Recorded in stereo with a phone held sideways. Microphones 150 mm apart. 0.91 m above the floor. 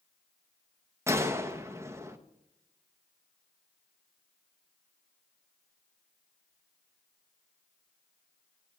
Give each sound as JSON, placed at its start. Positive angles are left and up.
{"t": 1.1, "sound": "a gunshot", "side_deg": -20, "distance_m": 0.8}